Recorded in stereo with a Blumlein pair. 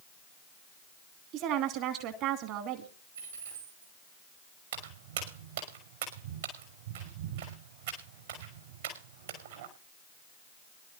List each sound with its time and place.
1.3 s a woman speaking: 40° right, 2.5 m
3.1 s a dropped coin: 65° right, 10 m
4.7 s footsteps: 60° right, 5.5 m